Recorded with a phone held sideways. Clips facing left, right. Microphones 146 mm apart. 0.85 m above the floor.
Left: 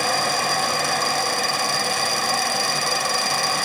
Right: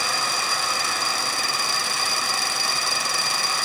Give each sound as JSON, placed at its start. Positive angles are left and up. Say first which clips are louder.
{"t": 0.0, "sound": "a fan", "louder": "left 6 dB", "side_deg": 55, "distance_m": 1.0}